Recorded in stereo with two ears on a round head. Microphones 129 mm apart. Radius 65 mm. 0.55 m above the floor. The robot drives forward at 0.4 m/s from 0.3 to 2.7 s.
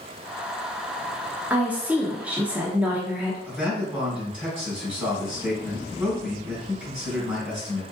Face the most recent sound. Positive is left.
turn(degrees=-10)  # may be behind; listen again after turning